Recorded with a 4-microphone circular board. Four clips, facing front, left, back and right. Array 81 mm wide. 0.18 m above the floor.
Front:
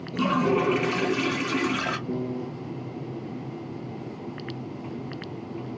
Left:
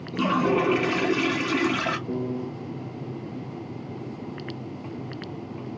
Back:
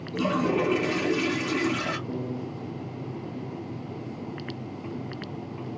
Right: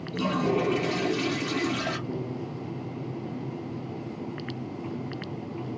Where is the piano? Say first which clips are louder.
Left 4 dB, front 2 dB; 55° left, 1.2 m.